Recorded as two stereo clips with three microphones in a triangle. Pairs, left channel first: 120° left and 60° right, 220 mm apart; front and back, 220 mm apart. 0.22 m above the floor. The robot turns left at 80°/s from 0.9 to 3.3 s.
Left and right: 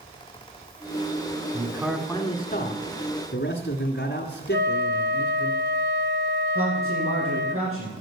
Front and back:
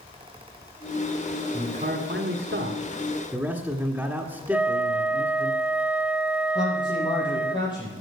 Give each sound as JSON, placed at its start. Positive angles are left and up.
{"t": 1.5, "sound": "a man speaking", "azimuth_deg": -115, "distance_m": 1.9}
{"t": 4.5, "sound": "a flute", "azimuth_deg": -100, "distance_m": 0.8}
{"t": 6.5, "sound": "a man speaking", "azimuth_deg": -70, "distance_m": 7.0}